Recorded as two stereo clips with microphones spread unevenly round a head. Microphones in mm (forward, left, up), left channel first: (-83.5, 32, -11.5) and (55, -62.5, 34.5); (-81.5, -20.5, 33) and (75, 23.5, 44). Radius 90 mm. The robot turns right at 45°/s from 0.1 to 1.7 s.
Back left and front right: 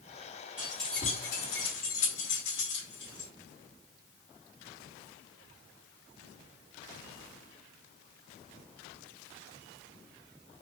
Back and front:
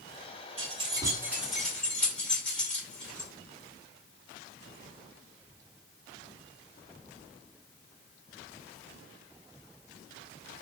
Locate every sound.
0.6 s keys jangling: 60° left, 2 m; by 3.3 s 110° left, 2 m